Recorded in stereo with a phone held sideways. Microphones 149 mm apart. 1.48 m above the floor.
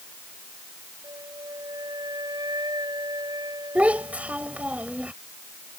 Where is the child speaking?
10° right (ahead or behind).